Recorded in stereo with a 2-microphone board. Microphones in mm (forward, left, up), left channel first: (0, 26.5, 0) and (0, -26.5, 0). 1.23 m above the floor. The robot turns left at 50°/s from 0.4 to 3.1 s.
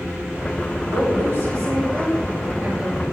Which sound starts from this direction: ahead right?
A woman speaking, at 0.8 s.